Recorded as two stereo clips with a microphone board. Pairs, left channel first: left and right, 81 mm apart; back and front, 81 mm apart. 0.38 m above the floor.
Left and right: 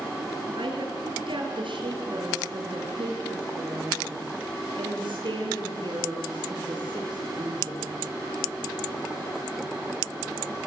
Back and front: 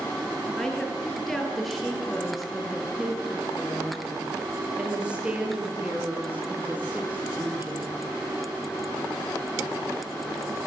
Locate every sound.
0.6 s a woman speaking: 95° right, 7.5 m; by 8.0 s 65° right, 9 m